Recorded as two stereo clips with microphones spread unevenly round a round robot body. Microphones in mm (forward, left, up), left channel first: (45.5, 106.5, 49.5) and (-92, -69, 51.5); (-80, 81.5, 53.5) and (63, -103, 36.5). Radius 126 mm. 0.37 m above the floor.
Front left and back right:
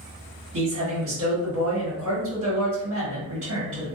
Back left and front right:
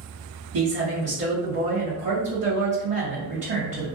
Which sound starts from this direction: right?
A man speaking, at 0.5 s.